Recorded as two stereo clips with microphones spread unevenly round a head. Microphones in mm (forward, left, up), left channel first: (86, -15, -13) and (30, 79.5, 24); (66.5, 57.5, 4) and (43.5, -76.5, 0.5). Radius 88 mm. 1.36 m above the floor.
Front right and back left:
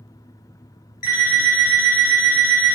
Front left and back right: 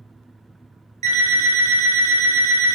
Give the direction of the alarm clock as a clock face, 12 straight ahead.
2 o'clock.